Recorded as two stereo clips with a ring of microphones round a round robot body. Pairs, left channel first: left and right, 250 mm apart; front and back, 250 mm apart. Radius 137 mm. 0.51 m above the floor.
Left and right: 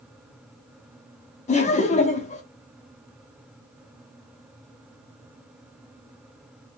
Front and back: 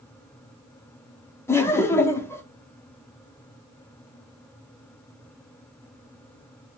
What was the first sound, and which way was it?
Laughter, 70° left.